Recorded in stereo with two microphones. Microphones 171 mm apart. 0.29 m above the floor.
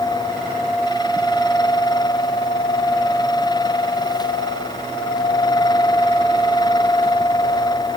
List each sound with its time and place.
Only background noise.